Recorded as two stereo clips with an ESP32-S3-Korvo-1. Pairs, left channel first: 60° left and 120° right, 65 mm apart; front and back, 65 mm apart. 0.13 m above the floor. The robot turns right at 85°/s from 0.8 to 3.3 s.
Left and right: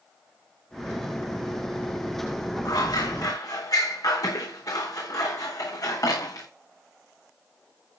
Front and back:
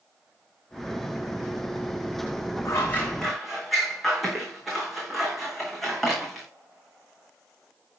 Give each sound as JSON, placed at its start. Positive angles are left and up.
{"t": 2.6, "sound": "scissors", "azimuth_deg": 35, "distance_m": 5.5}